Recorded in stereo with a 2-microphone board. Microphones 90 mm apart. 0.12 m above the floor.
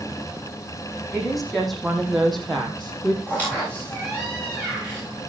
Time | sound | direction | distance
1.1 | a woman speaking | centre (ahead or behind) | 5.5 m
3.3 | a squeak | 15° left (ahead or behind) | 9.5 m